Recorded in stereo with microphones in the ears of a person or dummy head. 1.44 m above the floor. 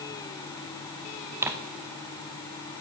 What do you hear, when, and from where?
1.4 s tearing paper: 10° right (ahead or behind), 0.9 m